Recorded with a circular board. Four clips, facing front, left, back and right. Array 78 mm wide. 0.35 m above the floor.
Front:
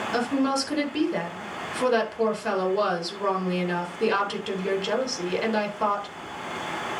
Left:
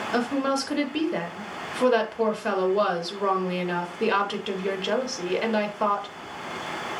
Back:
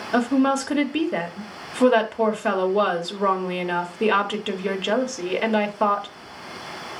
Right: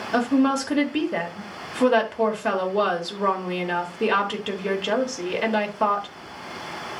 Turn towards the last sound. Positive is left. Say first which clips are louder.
# right 5 dB, back 6 dB
turn(degrees=-160)